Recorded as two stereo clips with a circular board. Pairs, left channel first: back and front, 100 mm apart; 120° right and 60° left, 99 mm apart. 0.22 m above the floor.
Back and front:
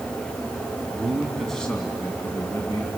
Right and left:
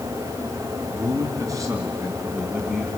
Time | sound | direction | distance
0.9 | a man speaking | 75° left | 2.5 m